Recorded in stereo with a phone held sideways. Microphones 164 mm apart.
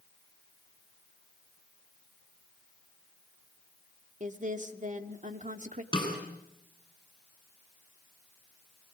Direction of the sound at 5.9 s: 25° left (ahead or behind).